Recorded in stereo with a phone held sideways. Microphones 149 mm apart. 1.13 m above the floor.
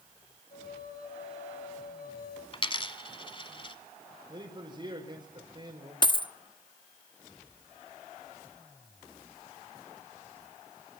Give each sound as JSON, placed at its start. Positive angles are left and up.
{"t": 0.5, "sound": "a flute", "side_deg": 75, "distance_m": 7.5}
{"t": 2.5, "sound": "a dropped coin", "side_deg": 35, "distance_m": 1.4}
{"t": 4.3, "sound": "a man speaking", "side_deg": -35, "distance_m": 5.0}
{"t": 6.0, "sound": "a dropped coin", "side_deg": 30, "distance_m": 0.8}